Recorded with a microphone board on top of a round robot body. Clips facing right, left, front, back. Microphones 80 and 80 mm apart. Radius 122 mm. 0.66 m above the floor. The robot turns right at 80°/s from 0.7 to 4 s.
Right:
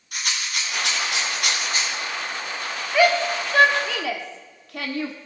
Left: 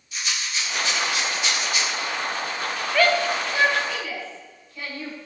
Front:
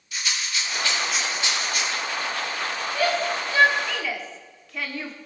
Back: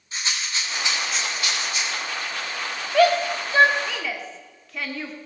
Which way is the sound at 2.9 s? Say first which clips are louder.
Right 2 dB, back 7 dB; 175° right.